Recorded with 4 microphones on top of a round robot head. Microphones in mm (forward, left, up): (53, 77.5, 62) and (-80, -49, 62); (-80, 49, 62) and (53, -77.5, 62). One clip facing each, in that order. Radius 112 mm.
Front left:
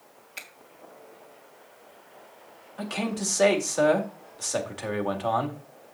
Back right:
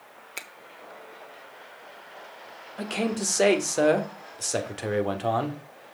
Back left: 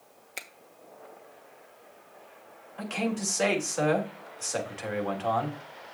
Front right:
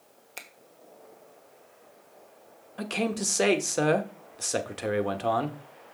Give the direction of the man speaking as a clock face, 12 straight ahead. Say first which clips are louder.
Back right 2 dB, front right 1 dB; 3 o'clock.